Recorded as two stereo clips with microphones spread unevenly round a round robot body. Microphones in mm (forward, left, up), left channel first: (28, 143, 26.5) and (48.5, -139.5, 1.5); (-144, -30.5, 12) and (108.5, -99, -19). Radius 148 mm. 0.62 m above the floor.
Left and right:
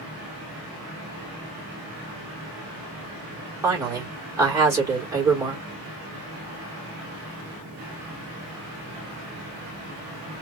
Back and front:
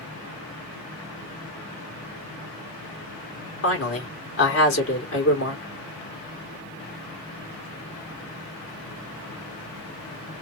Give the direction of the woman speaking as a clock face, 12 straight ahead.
5 o'clock.